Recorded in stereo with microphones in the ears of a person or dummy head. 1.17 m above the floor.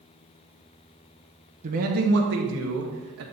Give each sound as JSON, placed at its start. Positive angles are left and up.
{"t": 1.6, "sound": "a man speaking", "side_deg": -40, "distance_m": 0.9}